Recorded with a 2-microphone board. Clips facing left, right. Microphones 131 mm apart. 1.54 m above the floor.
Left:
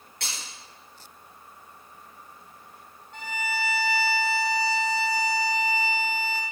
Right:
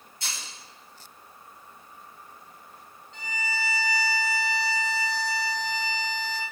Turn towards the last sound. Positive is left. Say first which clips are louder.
# left 3 dB
turn(degrees=55)  # may be behind; listen again after turning